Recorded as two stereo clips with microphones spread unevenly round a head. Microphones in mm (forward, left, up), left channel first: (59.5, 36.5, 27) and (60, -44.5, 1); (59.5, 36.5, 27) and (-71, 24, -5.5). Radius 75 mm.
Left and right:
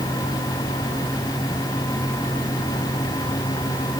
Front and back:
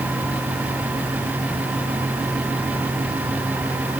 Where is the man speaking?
No man speaking in this recording.